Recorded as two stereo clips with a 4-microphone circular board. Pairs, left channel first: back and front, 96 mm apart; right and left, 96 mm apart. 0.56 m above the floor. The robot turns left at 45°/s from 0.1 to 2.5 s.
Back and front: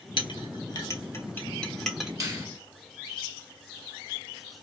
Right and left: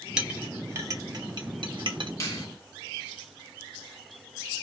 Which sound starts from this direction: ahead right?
A finger snap, at 2.2 s.